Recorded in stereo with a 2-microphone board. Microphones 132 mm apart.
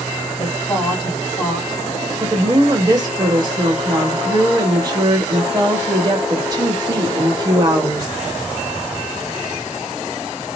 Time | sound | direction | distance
0.4 | a woman speaking | 35° left (ahead or behind) | 1.8 m
2.2 | a woman speaking | 30° right (ahead or behind) | 1.1 m